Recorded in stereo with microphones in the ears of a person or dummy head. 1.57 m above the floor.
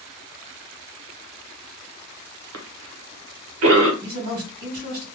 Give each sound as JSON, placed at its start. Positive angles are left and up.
{"t": 2.5, "sound": "a cough", "side_deg": -90, "distance_m": 1.1}
{"t": 4.0, "sound": "a man speaking", "side_deg": -50, "distance_m": 2.0}